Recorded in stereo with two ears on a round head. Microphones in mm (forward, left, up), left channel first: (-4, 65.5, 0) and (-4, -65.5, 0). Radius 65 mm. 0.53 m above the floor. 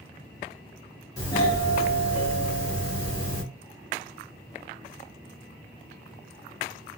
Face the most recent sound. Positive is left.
turn(degrees=25)  # may be behind; listen again after turning